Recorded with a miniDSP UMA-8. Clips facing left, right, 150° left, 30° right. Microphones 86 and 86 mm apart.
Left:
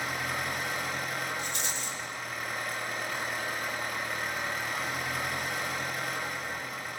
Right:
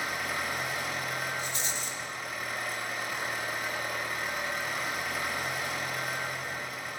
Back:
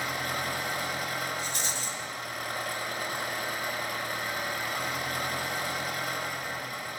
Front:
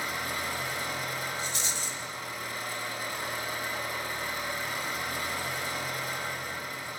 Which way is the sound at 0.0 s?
Straight behind.